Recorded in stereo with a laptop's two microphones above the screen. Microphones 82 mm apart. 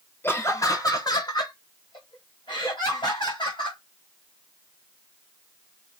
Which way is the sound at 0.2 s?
25° left (ahead or behind).